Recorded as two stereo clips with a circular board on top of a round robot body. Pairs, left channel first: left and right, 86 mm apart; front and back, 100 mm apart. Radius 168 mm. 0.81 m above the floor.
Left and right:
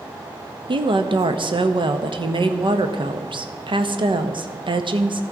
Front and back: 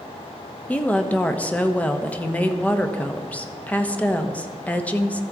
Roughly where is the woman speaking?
Right.